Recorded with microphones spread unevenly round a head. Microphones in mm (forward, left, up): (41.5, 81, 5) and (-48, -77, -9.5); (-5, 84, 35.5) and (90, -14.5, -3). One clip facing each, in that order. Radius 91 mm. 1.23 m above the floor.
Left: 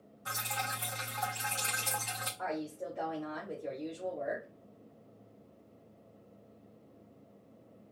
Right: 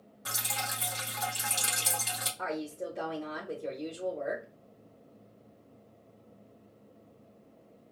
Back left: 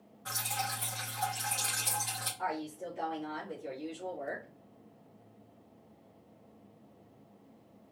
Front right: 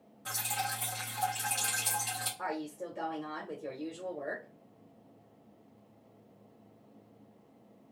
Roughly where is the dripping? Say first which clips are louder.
Right 1 dB, front right 1 dB; right.